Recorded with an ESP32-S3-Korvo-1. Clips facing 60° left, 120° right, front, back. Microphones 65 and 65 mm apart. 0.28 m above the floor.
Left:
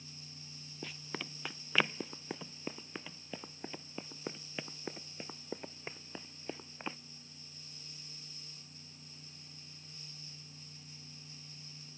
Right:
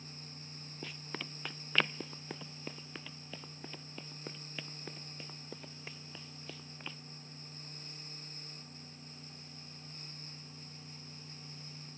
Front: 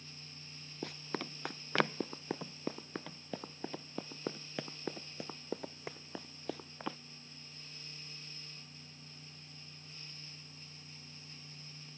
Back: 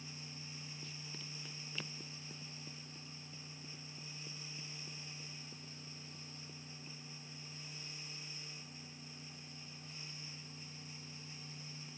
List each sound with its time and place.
0.8 s running footsteps: 30° right; by 7.0 s straight ahead